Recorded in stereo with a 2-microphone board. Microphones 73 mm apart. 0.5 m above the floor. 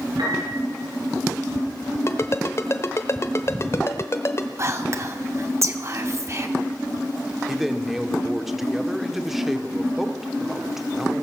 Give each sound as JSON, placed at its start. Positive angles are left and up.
{"t": 0.2, "sound": "a piano", "side_deg": -85, "distance_m": 7.0}
{"t": 2.1, "sound": "a ringtone", "side_deg": 35, "distance_m": 0.9}
{"t": 4.6, "sound": "whispering", "side_deg": -40, "distance_m": 0.8}
{"t": 7.5, "sound": "a man speaking", "side_deg": -5, "distance_m": 1.0}